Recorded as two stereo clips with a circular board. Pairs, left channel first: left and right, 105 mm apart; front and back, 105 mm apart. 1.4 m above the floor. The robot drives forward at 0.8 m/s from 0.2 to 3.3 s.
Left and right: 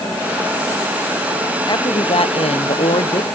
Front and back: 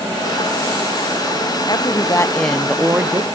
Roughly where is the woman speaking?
Ahead left.